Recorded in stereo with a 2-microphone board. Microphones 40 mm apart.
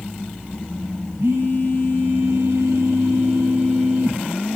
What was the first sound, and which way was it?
A phone buzzing, 80° right.